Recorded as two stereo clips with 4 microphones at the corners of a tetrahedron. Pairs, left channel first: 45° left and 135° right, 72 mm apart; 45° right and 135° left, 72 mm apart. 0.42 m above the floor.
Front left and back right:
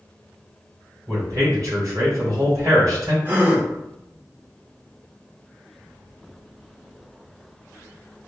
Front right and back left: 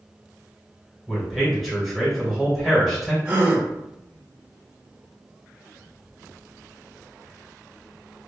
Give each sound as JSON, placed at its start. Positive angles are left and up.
{"t": 1.1, "sound": "a man speaking", "azimuth_deg": -135, "distance_m": 1.7}
{"t": 3.2, "sound": "a gasp", "azimuth_deg": -175, "distance_m": 0.8}